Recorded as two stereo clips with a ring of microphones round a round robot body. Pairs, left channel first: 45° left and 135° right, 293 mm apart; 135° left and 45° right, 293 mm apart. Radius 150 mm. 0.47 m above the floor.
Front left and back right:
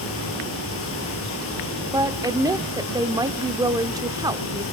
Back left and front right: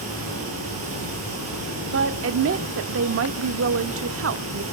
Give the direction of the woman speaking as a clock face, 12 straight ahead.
2 o'clock.